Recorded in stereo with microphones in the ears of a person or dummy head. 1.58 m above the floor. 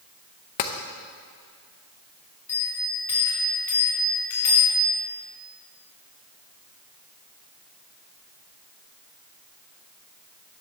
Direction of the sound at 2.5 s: 10° left (ahead or behind).